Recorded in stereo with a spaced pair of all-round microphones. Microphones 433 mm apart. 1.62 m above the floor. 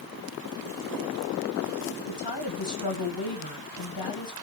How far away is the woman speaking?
About 2 m.